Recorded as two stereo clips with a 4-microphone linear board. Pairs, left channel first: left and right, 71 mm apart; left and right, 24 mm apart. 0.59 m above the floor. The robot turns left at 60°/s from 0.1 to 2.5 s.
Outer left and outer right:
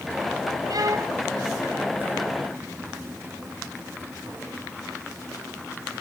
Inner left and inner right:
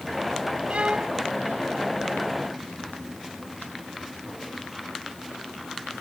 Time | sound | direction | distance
0.7 | a violin | 65° right (ahead or behind) | ?